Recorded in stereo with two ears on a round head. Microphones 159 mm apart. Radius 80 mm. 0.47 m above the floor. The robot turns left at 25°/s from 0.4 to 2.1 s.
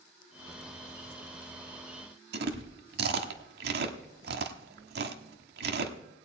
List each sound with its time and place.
2.3 s chewing: 60° right (ahead or behind), 1.0 m